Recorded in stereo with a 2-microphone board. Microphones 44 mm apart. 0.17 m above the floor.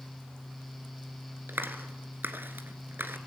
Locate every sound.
1.5 s a clap: 55° right (ahead or behind), 2.0 m